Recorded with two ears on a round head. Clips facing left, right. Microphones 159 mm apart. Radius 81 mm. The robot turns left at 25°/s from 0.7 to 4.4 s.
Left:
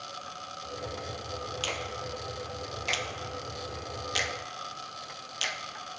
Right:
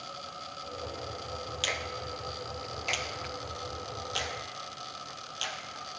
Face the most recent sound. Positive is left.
turn(degrees=20)  # may be behind; listen again after turning